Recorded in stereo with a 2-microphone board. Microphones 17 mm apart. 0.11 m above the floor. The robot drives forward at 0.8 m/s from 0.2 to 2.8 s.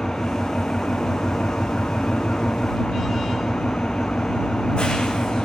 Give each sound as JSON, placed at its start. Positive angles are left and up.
{"t": 0.0, "sound": "an engine running", "side_deg": 50, "distance_m": 2.0}